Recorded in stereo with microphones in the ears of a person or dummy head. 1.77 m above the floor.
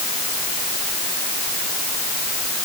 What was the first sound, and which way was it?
Only background noise.